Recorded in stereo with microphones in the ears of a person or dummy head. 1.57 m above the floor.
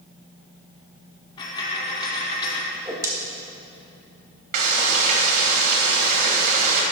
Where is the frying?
55° right (ahead or behind), 1.9 m.